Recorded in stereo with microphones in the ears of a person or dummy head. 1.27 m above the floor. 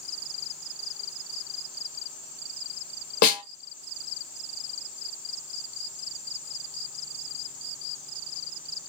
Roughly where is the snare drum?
Left.